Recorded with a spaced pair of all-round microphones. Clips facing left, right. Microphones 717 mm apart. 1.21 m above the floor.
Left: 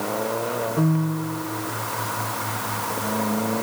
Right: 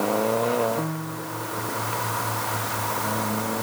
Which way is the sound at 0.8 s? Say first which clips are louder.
Left 7 dB; 60° left (ahead or behind).